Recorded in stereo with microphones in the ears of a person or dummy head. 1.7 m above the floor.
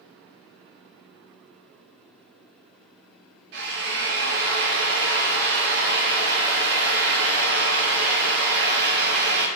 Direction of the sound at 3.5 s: 60° right (ahead or behind).